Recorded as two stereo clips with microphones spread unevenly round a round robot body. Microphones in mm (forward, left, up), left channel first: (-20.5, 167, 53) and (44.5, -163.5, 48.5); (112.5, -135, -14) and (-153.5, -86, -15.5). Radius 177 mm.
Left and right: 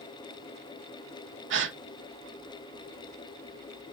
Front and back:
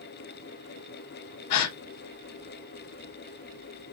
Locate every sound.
1.5 s a gasp: 25° right, 0.5 m